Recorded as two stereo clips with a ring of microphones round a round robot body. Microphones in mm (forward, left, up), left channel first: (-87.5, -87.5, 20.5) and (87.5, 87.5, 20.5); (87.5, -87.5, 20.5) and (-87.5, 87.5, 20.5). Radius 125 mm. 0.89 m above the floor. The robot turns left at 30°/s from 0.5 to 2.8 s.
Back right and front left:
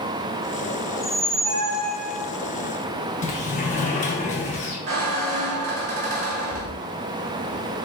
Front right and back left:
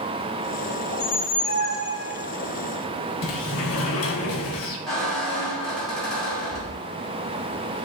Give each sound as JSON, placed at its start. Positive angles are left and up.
{"t": 0.9, "sound": "a squeak", "azimuth_deg": -50, "distance_m": 2.0}
{"t": 3.2, "sound": "a sliding door", "azimuth_deg": -75, "distance_m": 0.8}
{"t": 4.9, "sound": "a squeak", "azimuth_deg": 45, "distance_m": 1.5}